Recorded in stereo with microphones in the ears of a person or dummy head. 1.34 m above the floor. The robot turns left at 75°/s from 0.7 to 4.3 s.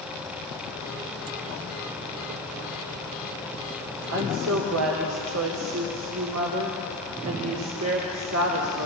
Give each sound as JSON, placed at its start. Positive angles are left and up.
{"t": 4.1, "sound": "a woman speaking", "side_deg": -65, "distance_m": 3.0}